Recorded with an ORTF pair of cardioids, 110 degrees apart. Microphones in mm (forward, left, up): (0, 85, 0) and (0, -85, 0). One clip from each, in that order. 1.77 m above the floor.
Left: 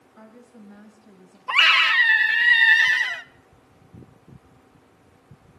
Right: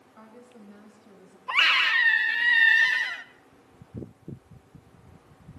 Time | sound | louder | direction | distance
0.1 | a woman speaking | left 2 dB | 5° right | 8 m
1.5 | a scream | left 5 dB | 20° left | 1.4 m